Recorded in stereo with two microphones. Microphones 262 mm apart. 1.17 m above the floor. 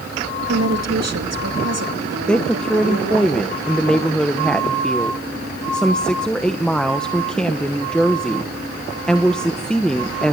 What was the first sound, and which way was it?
A woman speaking, 75° right (ahead or behind).